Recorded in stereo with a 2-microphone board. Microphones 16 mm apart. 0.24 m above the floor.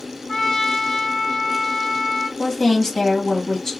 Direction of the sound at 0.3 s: 35° left (ahead or behind).